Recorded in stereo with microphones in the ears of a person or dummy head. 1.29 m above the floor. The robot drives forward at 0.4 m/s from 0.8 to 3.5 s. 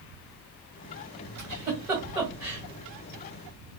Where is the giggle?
5° right (ahead or behind), 1.7 m; by 2.6 s 10° right (ahead or behind), 1.3 m.